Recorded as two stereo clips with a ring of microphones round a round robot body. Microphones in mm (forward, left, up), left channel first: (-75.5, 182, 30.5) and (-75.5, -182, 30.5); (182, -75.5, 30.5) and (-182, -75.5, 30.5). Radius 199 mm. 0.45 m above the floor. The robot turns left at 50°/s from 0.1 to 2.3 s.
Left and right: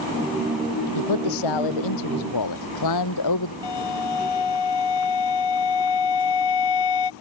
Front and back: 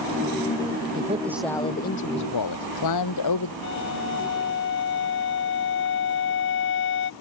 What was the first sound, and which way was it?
A man speaking, 115° left.